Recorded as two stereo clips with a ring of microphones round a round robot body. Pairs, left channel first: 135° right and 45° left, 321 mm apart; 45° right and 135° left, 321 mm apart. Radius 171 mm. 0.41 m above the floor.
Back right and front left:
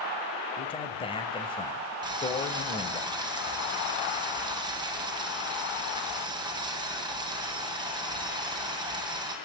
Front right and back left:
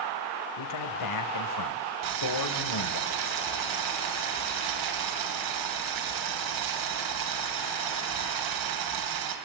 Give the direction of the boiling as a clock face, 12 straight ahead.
8 o'clock.